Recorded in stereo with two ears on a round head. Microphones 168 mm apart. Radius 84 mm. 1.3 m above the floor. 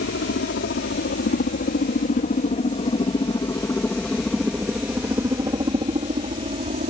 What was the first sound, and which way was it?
A helicopter, 65° left (ahead or behind).